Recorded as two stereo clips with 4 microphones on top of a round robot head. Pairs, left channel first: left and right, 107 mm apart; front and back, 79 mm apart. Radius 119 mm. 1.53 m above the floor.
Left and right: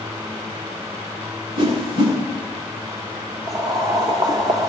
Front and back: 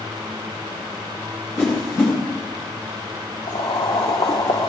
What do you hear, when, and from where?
1.6 s a whoosh: 70° right, 8 m
3.5 s boiling: 40° right, 1.4 m